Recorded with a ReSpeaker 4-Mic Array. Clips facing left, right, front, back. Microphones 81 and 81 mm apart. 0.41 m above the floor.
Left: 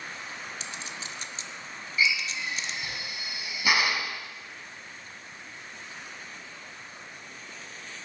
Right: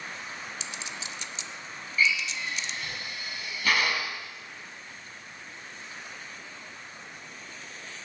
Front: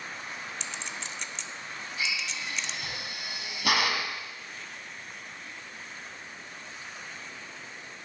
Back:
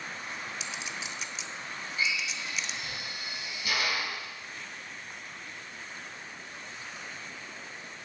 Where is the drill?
15° left, 1.9 m.